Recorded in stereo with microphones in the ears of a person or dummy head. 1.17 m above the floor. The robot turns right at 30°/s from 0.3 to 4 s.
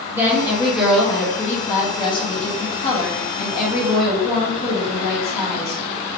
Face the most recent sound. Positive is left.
turn(degrees=90)